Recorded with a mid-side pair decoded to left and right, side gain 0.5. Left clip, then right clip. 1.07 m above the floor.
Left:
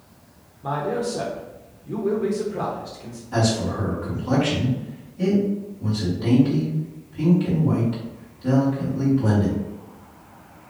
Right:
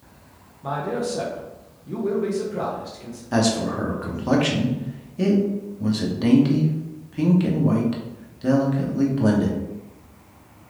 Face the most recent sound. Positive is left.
turn(degrees=-60)